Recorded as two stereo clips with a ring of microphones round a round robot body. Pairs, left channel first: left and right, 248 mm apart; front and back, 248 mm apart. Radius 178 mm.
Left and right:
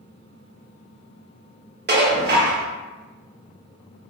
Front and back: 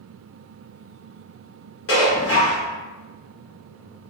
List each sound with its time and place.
1.9 s dishes clattering: 40° right, 0.7 m